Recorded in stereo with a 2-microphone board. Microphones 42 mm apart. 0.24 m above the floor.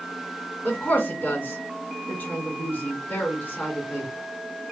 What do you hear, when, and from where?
0.6 s a woman speaking: 40° left (ahead or behind), 2.5 m